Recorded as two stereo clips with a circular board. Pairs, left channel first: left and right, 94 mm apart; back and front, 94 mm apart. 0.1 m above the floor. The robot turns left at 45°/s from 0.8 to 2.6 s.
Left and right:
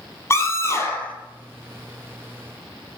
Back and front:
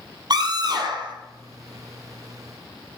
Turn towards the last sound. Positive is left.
turn(degrees=-50)